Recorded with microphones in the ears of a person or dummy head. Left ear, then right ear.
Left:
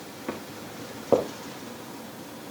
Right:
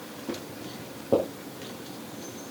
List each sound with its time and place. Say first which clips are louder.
0.3 s footsteps: left 1 dB; 60° left (ahead or behind), 6.5 m